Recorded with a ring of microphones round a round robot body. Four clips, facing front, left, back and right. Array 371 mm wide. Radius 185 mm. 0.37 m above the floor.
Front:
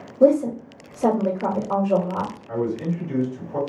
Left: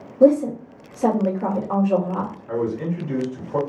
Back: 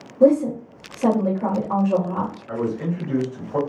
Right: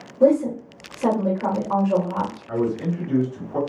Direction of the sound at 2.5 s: 110° left.